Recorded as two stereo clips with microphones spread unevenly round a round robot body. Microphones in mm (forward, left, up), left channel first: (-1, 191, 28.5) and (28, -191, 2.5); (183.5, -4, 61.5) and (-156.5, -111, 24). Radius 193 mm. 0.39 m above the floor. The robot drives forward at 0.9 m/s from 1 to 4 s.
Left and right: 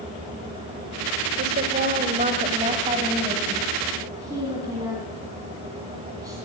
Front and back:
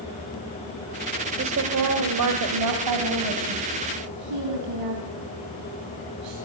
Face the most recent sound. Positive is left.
turn(degrees=-165)